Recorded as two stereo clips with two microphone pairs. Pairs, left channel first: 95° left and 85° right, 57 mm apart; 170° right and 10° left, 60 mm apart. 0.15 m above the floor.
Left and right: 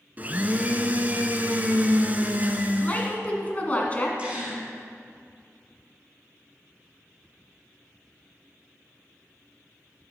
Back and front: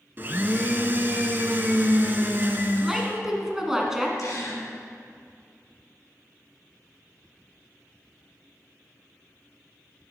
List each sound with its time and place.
0.2 s a blender: 35° right, 0.7 m
2.8 s a woman speaking: 85° left, 1.3 m
4.2 s a gasp: 150° right, 3 m